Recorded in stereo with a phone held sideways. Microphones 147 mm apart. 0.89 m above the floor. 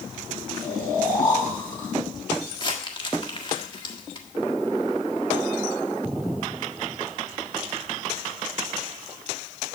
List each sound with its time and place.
0.6 s snoring: 10° left (ahead or behind), 8 m
2.6 s crumpling: 35° left (ahead or behind), 1.6 m